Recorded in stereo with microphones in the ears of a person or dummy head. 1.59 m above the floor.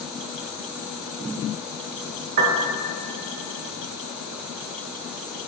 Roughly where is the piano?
Right.